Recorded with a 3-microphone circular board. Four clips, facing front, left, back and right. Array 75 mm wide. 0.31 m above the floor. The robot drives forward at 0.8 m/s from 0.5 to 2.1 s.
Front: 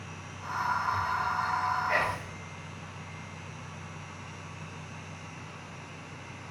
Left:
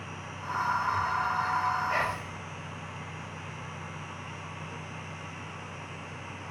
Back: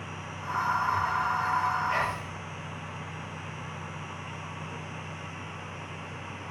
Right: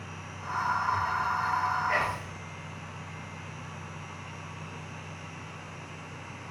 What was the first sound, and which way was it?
Whispering, 45° right.